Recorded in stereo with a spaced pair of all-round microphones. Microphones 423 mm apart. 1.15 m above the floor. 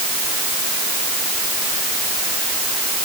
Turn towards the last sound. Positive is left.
No sound to turn to.